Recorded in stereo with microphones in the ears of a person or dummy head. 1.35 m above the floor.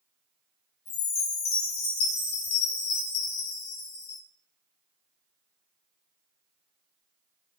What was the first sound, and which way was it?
A chime, 30° left (ahead or behind).